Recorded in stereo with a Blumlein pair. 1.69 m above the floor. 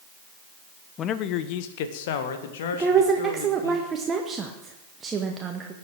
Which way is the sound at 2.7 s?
20° right.